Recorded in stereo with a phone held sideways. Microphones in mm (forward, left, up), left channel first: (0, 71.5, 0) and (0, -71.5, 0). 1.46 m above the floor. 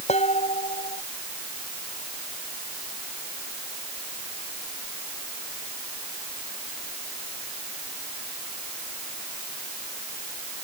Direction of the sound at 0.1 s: 50° left (ahead or behind).